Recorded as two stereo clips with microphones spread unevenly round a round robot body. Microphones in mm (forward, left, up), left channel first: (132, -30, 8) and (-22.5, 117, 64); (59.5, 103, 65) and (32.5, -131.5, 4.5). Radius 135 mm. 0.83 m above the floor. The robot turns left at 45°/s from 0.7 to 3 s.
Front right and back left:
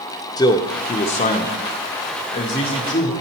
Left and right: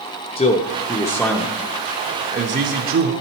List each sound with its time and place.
0.4 s a man speaking: 10° left, 0.6 m; by 3.1 s 95° right, 0.6 m